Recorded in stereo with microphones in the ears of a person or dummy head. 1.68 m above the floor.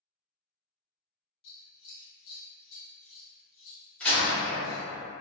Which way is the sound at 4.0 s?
5° left (ahead or behind).